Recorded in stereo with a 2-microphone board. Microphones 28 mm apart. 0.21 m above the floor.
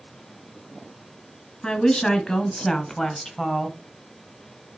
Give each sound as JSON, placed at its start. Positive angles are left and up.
{"t": 1.6, "sound": "a woman speaking", "side_deg": 30, "distance_m": 2.5}